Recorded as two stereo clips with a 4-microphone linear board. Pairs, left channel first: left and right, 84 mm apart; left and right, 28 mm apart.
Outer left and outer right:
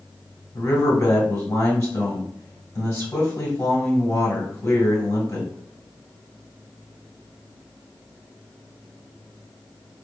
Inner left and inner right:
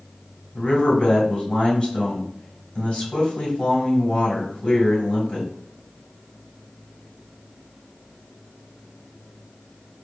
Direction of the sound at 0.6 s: 30° left (ahead or behind).